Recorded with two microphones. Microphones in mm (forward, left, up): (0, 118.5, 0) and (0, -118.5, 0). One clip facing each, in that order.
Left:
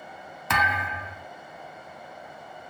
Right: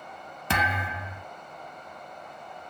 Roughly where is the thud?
Right.